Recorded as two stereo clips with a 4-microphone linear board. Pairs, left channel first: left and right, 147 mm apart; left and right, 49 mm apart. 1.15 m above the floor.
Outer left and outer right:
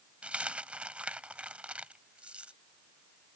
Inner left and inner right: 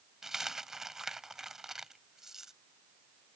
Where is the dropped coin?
10° right (ahead or behind).